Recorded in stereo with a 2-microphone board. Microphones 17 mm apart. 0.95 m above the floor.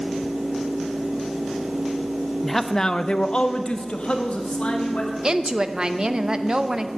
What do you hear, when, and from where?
2.4 s a man speaking: 5° left (ahead or behind), 0.6 m; by 5.1 s 80° left, 1.6 m
5.2 s a woman speaking: 40° right (ahead or behind), 0.6 m